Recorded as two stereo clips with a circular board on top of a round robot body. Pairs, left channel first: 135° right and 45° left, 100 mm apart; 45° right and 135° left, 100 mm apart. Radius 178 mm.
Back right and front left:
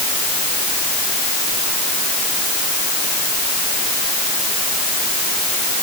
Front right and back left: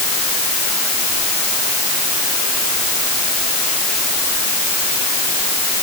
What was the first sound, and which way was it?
Only background noise.